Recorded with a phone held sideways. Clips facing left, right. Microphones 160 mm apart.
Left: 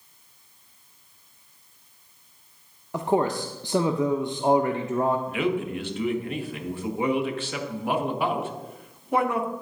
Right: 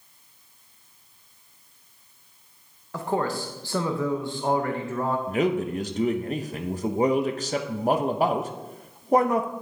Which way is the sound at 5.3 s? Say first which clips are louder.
Right 2 dB; 40° right (ahead or behind).